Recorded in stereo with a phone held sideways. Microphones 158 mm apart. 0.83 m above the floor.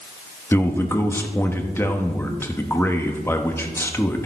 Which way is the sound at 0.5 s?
15° left (ahead or behind).